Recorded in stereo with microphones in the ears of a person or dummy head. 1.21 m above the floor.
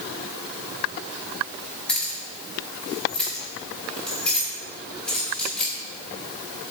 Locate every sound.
1.9 s keys jangling: 5° left (ahead or behind), 2 m